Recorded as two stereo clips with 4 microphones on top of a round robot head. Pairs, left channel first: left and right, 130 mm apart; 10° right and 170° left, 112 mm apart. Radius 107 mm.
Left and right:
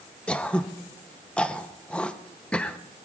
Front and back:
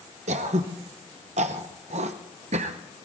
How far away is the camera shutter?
No camera shutter in this recording.